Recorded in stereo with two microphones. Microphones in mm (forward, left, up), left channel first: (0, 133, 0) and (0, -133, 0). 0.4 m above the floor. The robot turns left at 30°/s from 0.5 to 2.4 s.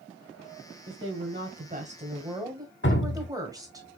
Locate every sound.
0.9 s a woman speaking: 120° right, 1.5 m; by 3.8 s 165° right, 1.5 m
2.8 s dripping: 45° left (ahead or behind), 0.7 m